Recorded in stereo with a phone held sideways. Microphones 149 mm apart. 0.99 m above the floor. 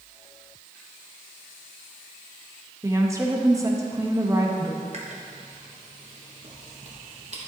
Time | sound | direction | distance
2.8 | a woman speaking | 20° right (ahead or behind) | 0.9 m
4.9 | chewing | 50° right (ahead or behind) | 1.1 m